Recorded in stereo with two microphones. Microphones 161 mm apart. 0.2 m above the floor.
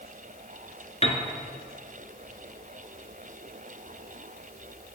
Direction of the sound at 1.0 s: 40° left (ahead or behind).